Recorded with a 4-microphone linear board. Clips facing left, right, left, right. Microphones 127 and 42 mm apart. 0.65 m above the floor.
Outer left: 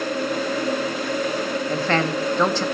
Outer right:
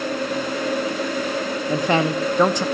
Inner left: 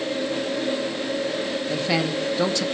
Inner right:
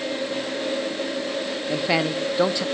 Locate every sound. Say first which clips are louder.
1.7 s a man speaking: outer right 4 dB, inner right 3 dB; 15° right (ahead or behind), 0.8 m